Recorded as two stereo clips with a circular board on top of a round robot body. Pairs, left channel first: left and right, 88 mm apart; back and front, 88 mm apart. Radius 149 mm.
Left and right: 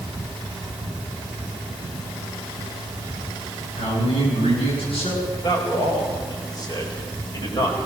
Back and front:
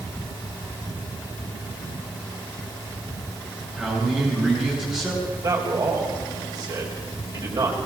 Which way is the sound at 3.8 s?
80° left.